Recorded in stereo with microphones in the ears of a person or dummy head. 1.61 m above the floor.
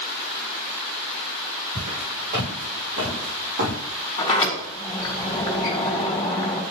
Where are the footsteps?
55° right (ahead or behind), 4 m; by 3.8 s 60° right (ahead or behind), 3.5 m.